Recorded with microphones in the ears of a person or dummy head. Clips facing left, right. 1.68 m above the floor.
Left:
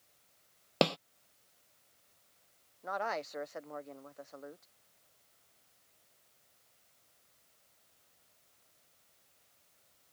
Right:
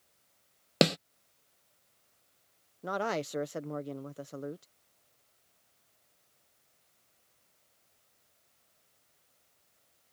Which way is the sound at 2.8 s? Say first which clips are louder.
Right 4 dB; 45° right (ahead or behind).